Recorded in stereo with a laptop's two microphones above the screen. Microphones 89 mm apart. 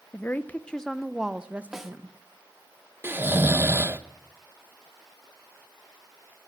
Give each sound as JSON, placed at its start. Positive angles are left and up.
{"t": 0.1, "sound": "a woman speaking", "side_deg": 25, "distance_m": 0.8}
{"t": 1.7, "sound": "a snare drum", "side_deg": -5, "distance_m": 1.0}
{"t": 3.0, "sound": "snoring", "side_deg": -25, "distance_m": 0.8}